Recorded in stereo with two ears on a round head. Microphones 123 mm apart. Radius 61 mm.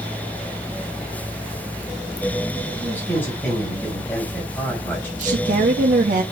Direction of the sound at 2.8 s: 15° left (ahead or behind).